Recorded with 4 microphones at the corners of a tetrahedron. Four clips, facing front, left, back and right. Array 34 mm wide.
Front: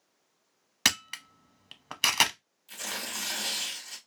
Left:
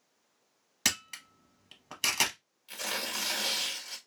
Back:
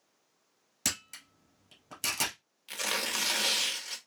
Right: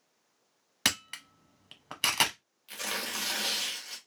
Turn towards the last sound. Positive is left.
turn(degrees=-175)